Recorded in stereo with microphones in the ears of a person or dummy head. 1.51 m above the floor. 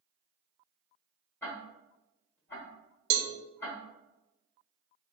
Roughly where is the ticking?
Centre.